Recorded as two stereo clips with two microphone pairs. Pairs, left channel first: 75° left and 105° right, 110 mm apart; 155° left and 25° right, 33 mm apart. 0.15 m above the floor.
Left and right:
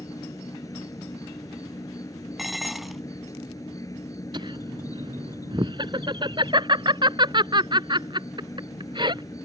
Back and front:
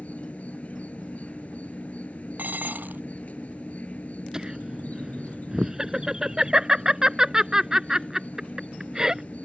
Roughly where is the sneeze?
No sneeze in this recording.